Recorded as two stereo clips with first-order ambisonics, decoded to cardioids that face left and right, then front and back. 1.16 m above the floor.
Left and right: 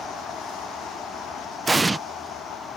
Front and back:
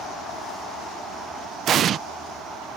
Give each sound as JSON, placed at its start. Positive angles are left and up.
{"t": 1.7, "sound": "an explosion", "azimuth_deg": -160}